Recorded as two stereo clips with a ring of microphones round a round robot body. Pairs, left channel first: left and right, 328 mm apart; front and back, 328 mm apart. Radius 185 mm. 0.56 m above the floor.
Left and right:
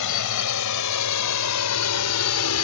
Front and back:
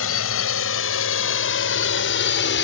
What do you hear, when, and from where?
0.0 s a drone: 55° left